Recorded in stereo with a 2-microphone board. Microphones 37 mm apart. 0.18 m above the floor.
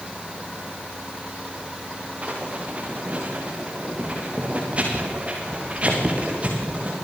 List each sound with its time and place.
2.2 s writing: 35° right (ahead or behind), 7 m